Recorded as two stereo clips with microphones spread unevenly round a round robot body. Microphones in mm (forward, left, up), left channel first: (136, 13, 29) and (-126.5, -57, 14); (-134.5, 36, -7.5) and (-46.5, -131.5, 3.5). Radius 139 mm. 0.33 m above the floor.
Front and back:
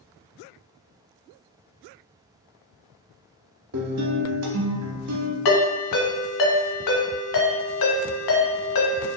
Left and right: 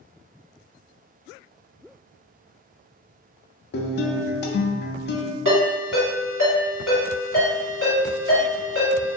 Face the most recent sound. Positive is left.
turn(degrees=15)